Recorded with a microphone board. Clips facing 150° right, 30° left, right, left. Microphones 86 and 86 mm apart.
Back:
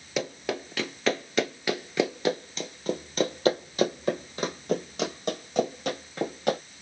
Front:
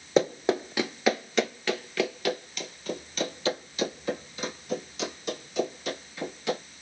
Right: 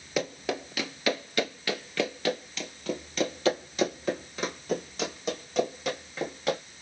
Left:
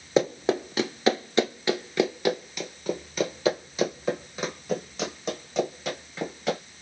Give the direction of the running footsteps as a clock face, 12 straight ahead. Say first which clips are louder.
Front 7 dB, left 7 dB; 10 o'clock.